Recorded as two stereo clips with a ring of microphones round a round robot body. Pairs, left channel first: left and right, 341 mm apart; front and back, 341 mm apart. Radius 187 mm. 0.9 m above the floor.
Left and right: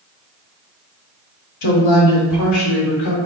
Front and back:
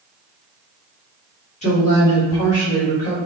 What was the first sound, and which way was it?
A woman speaking, 70° left.